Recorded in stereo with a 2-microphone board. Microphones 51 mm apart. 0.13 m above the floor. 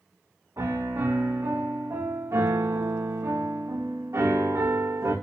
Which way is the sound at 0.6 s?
80° right.